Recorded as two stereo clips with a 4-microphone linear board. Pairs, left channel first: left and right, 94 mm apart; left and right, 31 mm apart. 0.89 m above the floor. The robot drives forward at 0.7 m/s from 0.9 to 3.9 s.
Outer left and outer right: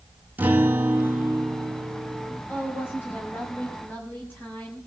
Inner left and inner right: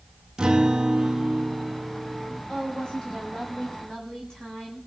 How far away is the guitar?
About 2 m.